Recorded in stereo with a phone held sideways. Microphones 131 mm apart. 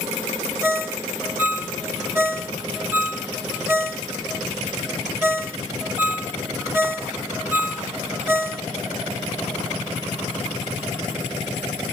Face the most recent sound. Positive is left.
turn(degrees=-15)  # may be behind; listen again after turning